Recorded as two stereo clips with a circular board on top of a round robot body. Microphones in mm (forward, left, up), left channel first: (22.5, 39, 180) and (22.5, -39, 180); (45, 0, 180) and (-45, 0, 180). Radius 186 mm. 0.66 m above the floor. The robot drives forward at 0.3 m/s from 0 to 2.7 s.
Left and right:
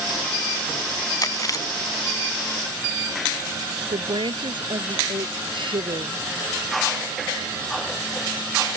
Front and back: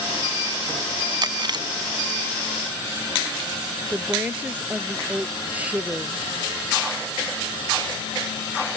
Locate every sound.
1.2 s chewing: 135° left; by 3.5 s 140° left
3.9 s a woman speaking: 105° right